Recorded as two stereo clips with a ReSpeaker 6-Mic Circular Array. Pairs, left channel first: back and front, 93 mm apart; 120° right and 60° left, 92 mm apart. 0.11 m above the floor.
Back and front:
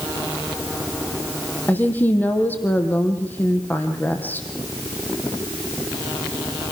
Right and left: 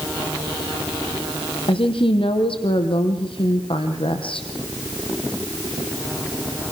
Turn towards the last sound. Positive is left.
turn(degrees=-110)